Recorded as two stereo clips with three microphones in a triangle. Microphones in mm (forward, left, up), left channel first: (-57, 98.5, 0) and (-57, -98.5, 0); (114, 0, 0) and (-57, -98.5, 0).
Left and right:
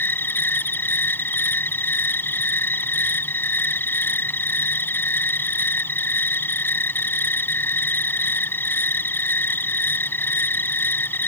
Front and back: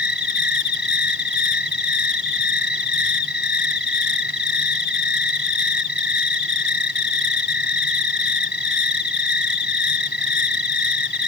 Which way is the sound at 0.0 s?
10° left.